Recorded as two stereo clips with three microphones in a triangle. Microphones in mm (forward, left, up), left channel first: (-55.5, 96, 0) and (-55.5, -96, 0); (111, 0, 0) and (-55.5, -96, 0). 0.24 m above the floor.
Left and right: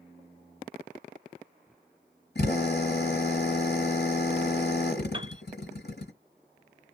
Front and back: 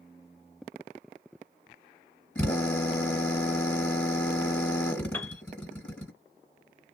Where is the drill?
110° left, 2.5 m.